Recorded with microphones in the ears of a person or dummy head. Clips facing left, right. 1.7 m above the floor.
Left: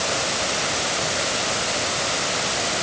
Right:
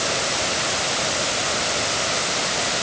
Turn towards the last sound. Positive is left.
No sound to turn to.